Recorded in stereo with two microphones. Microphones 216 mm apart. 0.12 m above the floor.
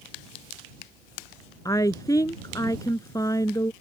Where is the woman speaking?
15° left (ahead or behind).